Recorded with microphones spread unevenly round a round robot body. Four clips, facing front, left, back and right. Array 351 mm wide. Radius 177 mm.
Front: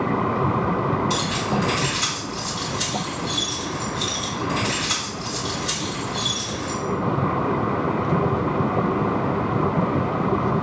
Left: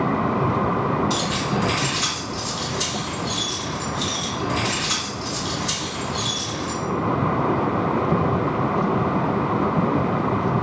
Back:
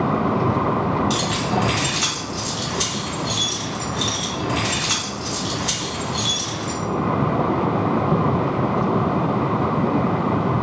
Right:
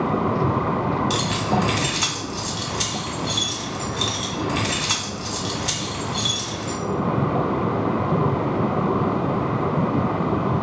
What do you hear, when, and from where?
1.1 s keys jangling: 95° right, 1.8 m